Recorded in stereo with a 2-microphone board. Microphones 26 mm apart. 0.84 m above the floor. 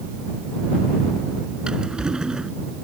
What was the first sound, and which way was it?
A drawer, 35° right (ahead or behind).